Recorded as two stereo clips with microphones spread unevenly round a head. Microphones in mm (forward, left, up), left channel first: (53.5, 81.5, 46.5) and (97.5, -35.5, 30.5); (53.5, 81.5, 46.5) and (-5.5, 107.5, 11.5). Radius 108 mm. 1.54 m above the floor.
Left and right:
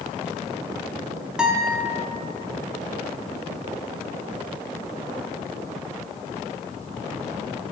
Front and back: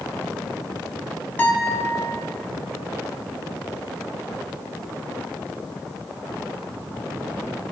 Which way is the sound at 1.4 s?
20° left.